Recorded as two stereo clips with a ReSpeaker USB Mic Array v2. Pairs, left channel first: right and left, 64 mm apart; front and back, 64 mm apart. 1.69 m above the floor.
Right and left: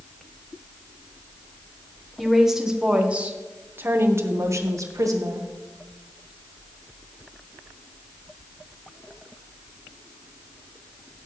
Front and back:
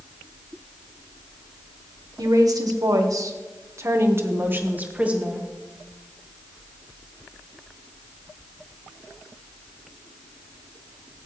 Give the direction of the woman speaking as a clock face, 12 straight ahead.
6 o'clock.